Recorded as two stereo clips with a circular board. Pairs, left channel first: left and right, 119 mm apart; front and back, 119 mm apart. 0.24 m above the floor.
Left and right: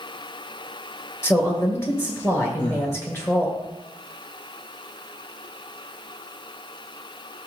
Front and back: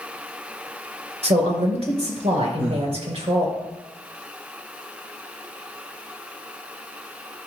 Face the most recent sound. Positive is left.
turn(degrees=105)